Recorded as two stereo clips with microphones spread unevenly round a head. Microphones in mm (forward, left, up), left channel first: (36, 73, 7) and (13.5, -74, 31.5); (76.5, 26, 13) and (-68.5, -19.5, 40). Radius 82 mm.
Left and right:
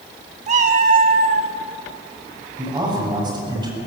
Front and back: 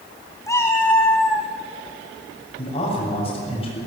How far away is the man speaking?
About 7 m.